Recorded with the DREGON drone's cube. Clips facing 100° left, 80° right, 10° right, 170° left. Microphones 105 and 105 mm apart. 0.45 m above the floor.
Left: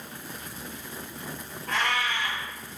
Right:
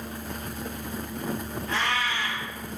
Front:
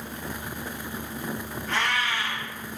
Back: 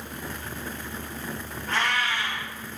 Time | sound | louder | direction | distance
1.7 | a cat meowing | left 1 dB, back 1 dB | 130° left | 1.3 m